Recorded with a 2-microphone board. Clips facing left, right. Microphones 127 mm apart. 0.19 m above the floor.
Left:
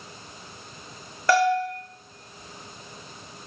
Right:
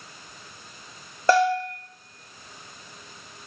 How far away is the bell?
About 0.7 m.